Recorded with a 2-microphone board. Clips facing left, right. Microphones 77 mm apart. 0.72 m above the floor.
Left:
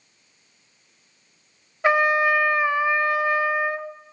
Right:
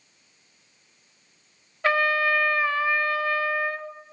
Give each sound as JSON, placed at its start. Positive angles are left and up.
{"t": 1.8, "sound": "a trumpet", "side_deg": 20, "distance_m": 0.7}